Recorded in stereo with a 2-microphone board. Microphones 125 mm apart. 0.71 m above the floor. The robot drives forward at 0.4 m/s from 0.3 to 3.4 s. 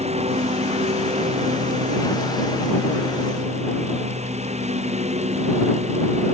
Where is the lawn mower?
60° right (ahead or behind).